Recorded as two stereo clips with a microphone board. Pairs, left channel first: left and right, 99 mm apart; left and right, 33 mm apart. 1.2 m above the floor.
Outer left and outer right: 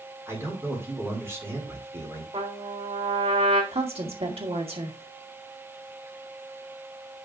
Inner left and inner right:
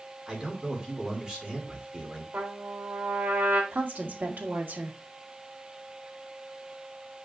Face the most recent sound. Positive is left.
turn(degrees=-80)